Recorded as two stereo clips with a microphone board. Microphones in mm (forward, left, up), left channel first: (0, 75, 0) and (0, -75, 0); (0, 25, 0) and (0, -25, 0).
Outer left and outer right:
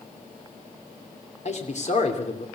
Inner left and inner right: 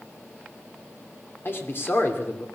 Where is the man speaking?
50° left (ahead or behind), 3 m.